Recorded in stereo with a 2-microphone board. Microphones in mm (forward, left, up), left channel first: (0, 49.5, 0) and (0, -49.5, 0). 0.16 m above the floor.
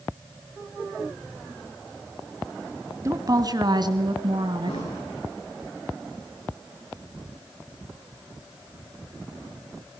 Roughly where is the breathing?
Left.